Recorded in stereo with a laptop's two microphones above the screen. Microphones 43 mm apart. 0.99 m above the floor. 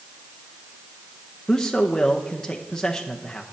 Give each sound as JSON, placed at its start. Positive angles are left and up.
{"t": 1.5, "sound": "a man speaking", "side_deg": 15, "distance_m": 0.7}